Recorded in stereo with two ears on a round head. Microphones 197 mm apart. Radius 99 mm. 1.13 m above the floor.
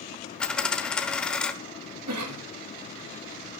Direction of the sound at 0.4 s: 5° left (ahead or behind).